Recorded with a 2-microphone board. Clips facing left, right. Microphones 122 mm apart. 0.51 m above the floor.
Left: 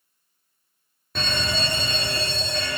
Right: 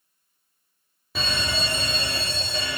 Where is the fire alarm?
5° right (ahead or behind), 1.8 m.